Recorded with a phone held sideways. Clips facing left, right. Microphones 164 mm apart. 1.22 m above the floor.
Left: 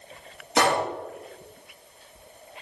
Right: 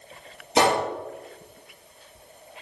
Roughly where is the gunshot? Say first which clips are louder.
Right 2 dB; right.